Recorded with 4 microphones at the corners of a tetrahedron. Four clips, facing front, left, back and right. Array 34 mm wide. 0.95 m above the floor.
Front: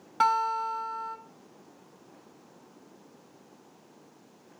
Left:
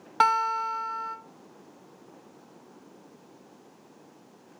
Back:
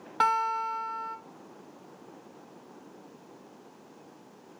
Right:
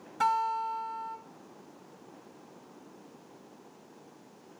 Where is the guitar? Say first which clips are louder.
Left 5 dB, front 1 dB; 95° left, 1.0 m.